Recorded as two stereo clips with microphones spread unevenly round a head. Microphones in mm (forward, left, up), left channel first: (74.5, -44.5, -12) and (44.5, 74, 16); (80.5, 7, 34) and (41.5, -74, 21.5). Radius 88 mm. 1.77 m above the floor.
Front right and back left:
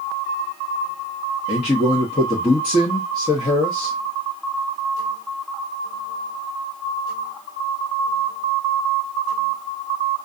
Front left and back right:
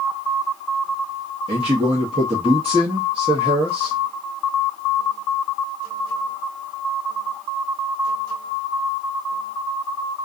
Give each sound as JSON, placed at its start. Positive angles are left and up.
{"t": 1.5, "sound": "a man speaking", "azimuth_deg": -135, "distance_m": 0.8}